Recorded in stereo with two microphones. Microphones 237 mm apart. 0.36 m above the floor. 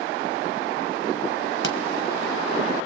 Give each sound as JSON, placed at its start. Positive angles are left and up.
{"t": 1.6, "sound": "a pop", "side_deg": 60, "distance_m": 1.6}